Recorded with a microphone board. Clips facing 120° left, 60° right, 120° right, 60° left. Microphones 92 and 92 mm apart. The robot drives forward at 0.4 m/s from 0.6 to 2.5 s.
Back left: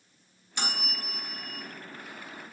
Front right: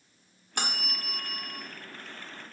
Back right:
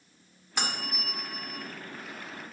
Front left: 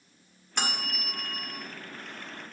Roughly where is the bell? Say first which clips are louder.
Front right 1 dB, front left 1 dB; ahead right.